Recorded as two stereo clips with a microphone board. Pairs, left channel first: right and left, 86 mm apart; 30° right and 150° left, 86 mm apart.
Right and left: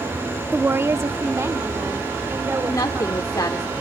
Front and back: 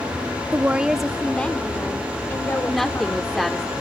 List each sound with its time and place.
0.5 s a woman speaking: 125° left, 0.7 m; by 3.3 s 30° left, 2.5 m
2.6 s a woman speaking: 115° right, 1.3 m